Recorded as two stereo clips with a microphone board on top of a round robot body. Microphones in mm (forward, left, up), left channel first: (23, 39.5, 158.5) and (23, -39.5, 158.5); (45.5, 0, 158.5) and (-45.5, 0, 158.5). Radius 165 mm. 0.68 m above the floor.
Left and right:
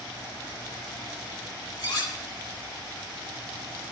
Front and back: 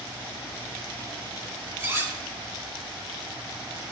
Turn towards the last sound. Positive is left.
turn(degrees=120)